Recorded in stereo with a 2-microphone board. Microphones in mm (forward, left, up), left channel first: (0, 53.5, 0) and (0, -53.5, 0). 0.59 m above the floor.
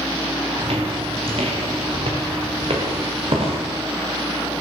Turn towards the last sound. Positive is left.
turn(degrees=-60)  # may be behind; listen again after turning